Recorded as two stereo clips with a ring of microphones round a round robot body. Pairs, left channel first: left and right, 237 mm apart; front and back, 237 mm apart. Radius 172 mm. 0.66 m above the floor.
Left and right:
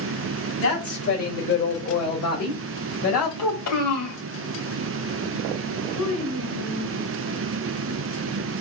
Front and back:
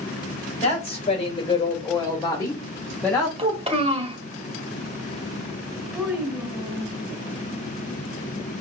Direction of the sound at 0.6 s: 60° left.